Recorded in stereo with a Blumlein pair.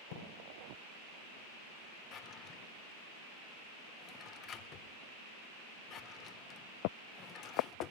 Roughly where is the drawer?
Ahead left.